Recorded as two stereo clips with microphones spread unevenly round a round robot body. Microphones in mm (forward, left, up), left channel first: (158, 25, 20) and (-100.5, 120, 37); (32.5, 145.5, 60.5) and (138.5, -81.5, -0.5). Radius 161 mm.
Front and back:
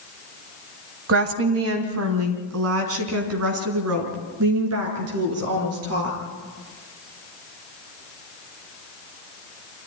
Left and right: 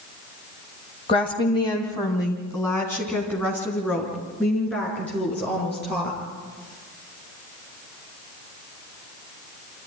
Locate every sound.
1.1 s a woman speaking: 165° right, 2 m; by 6.2 s 155° right, 6.5 m